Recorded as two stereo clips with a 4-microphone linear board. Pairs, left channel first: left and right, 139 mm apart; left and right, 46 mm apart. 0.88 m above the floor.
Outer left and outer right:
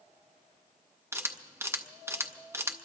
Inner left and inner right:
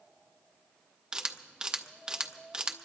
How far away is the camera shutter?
About 0.7 m.